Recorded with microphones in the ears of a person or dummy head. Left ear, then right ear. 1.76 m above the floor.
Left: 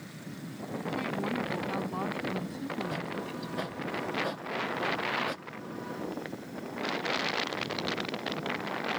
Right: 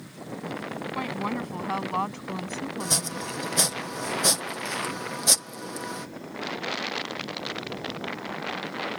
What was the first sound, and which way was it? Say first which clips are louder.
A woman speaking: right 2 dB; 45° right (ahead or behind).